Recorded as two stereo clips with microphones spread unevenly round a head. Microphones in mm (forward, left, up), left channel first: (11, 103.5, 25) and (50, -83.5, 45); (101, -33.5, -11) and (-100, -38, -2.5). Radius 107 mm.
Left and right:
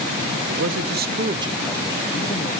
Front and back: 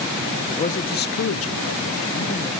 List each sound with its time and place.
0.5 s a man speaking: 55° right, 1.9 m; by 2.5 s 55° left, 1.7 m